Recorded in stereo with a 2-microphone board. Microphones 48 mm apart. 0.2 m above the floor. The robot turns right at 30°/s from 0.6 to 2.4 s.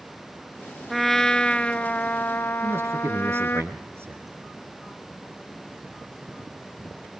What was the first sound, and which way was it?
A trumpet, straight ahead.